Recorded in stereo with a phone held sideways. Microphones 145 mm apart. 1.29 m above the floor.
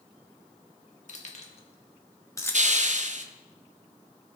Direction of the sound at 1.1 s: 55° left (ahead or behind).